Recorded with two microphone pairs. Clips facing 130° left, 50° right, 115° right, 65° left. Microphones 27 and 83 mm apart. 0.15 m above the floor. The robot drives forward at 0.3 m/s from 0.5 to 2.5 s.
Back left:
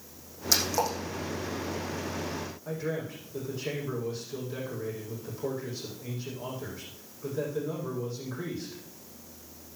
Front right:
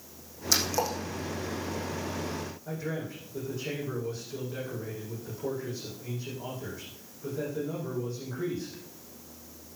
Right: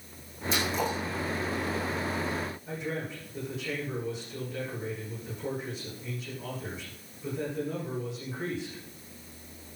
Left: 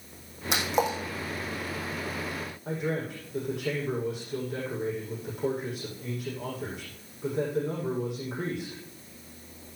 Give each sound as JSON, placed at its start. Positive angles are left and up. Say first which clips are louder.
{"t": 0.5, "sound": "a splash", "louder": "back left 1 dB, left 3 dB", "azimuth_deg": 45, "distance_m": 4.5}
{"t": 2.6, "sound": "a man speaking", "louder": "back left 3 dB, left 4 dB", "azimuth_deg": 65, "distance_m": 7.0}